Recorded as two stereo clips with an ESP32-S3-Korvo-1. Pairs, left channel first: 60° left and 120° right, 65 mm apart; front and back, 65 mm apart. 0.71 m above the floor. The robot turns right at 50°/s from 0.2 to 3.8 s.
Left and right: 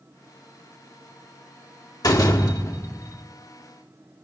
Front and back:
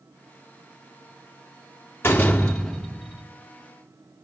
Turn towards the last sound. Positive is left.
turn(degrees=145)